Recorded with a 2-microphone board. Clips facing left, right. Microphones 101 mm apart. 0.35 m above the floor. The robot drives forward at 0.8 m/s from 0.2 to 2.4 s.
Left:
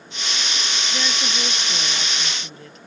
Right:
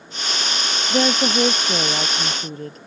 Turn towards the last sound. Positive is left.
turn(degrees=-40)  # may be behind; listen again after turning